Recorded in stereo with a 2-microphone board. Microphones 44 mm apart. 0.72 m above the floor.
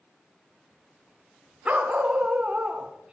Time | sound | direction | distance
1.6 | a dog barking | 25° right (ahead or behind) | 2.5 m